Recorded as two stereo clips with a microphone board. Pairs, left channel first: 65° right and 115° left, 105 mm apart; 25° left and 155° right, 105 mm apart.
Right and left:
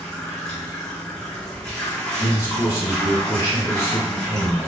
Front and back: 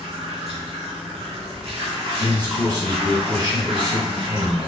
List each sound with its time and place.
0.0 s running water: 150° right, 1.3 m
2.2 s a man speaking: 120° right, 1.8 m